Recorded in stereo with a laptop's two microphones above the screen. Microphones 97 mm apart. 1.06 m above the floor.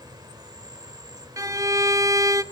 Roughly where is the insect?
Right.